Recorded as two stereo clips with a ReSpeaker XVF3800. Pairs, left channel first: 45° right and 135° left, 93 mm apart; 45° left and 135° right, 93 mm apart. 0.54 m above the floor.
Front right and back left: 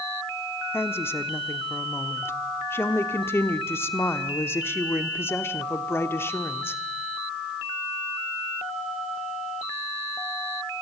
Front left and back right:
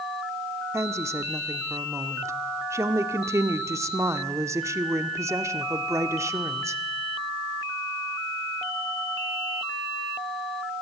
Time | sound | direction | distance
0.7 | a woman speaking | 95° right | 1.2 m